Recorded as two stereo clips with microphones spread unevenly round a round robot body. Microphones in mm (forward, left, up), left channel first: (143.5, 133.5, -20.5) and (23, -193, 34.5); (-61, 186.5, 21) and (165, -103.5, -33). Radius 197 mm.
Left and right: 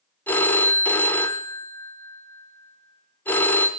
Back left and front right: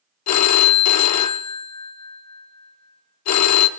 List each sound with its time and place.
0.3 s a phone ringing: 135° left, 0.5 m